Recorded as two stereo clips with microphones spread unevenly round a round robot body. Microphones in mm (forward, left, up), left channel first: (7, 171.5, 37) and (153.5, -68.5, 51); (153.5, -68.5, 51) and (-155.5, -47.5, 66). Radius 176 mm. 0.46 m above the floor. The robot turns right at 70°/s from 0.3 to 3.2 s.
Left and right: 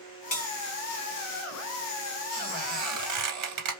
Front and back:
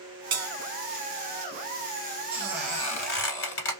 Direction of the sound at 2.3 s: 115° right.